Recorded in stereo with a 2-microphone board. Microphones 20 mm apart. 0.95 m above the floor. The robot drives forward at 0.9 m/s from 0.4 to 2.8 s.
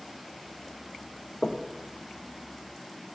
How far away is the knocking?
About 0.7 m.